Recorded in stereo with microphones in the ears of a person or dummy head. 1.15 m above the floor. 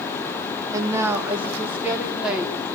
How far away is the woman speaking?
About 2.5 m.